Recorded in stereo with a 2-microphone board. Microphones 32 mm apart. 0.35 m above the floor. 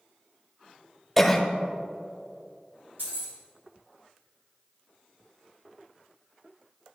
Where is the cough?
5° left (ahead or behind), 1.1 m.